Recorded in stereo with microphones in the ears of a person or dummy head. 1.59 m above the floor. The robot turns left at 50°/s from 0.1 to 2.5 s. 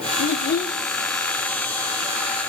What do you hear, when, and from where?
0.2 s a child speaking: 65° left, 0.8 m; by 0.8 s 35° left, 0.8 m